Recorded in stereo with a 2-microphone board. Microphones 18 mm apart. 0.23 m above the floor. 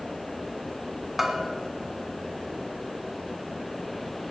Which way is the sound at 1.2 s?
10° right (ahead or behind).